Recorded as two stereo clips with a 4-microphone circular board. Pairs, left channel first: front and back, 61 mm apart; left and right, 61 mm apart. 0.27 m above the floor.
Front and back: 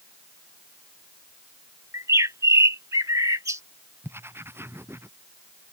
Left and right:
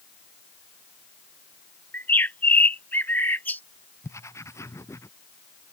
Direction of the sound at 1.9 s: 150° left.